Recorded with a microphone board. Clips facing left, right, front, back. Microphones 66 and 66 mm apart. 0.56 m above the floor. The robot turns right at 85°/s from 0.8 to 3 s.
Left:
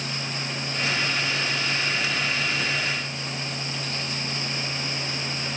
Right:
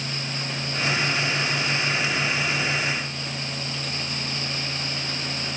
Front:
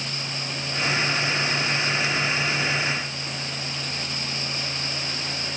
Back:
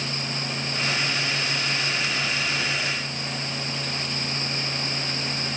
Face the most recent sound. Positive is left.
No sound to turn to.